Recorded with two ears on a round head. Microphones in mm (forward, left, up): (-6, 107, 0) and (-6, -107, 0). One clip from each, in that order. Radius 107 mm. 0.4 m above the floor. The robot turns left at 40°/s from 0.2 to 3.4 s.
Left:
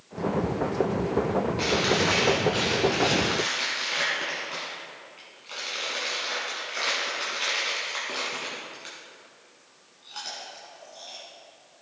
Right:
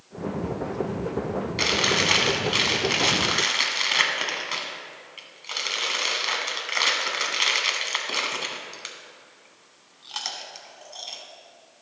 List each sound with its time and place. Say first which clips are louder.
1.6 s chewing: right 4 dB; 55° right (ahead or behind), 1.3 m